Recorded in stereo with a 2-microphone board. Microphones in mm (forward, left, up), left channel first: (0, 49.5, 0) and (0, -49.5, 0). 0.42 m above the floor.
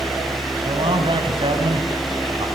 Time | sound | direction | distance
0.7 | a man speaking | 60° right (ahead or behind) | 4 m